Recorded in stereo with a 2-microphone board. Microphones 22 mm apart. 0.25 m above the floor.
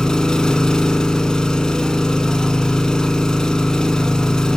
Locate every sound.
0.0 s an engine running: 35° left (ahead or behind), 1.2 m